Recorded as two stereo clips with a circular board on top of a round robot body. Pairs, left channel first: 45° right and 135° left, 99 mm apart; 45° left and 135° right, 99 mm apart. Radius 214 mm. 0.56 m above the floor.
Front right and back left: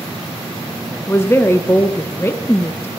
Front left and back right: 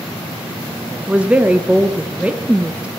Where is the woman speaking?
75° right, 0.8 m.